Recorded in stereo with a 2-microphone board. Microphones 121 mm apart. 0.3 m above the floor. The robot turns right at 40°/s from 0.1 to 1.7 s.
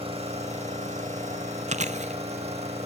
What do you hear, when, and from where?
0.0 s an engine running: 125° right, 6 m; by 2.9 s 60° right, 6 m
1.7 s chewing: 80° right, 0.9 m